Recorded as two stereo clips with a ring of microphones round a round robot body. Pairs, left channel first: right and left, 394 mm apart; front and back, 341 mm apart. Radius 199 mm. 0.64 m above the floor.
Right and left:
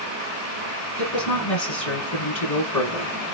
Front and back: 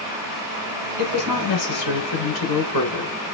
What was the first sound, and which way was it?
A woman speaking, 45° right.